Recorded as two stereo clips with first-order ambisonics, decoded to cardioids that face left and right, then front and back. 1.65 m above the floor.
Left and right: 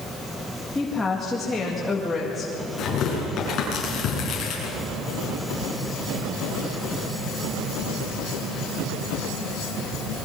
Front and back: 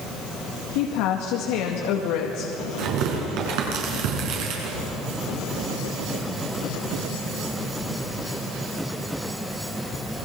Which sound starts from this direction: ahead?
A woman speaking, at 0.8 s.